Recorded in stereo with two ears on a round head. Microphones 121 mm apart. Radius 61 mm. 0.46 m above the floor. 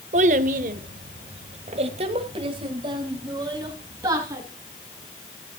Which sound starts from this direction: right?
A child speaking, at 0.1 s.